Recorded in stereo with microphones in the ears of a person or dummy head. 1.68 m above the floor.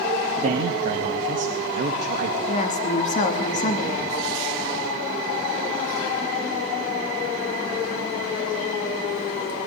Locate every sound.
0.4 s a man speaking: 50° right (ahead or behind), 2.5 m
2.5 s a woman speaking: 40° left (ahead or behind), 2.5 m